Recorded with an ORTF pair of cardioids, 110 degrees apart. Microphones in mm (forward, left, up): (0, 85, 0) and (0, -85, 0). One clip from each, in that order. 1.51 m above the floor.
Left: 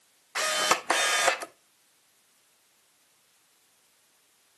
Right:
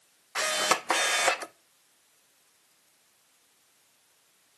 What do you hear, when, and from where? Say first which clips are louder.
0.3 s a camera shutter: left 1 dB; 5° left, 0.5 m